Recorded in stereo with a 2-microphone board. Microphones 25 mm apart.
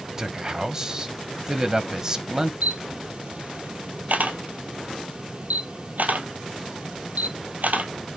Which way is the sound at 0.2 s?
25° right (ahead or behind).